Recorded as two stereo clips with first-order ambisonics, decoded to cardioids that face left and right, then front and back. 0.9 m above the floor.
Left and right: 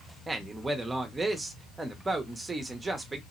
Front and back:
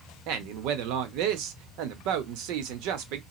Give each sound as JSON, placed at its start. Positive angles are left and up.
{"t": 0.3, "sound": "a man speaking", "azimuth_deg": -170, "distance_m": 0.8}